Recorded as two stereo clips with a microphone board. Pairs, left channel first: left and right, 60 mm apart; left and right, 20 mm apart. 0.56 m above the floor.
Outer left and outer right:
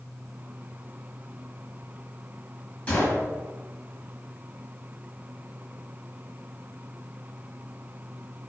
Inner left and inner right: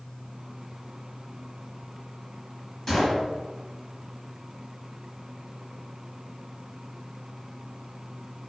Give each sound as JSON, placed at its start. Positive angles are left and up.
{"t": 2.9, "sound": "a gunshot", "side_deg": 20, "distance_m": 1.2}